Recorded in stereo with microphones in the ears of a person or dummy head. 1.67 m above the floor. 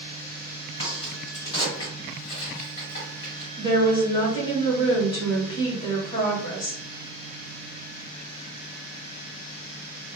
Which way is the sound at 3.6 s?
30° left (ahead or behind).